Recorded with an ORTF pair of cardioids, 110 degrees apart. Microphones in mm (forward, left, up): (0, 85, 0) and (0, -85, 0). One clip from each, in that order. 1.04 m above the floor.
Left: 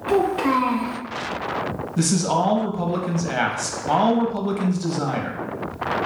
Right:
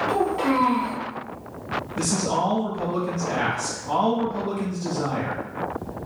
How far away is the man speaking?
About 0.8 m.